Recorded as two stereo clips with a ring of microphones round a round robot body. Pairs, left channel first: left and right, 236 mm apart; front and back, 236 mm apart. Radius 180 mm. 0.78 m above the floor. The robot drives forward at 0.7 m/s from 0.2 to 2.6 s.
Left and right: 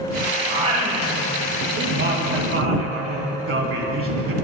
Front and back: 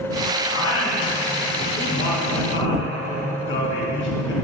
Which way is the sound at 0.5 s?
30° right.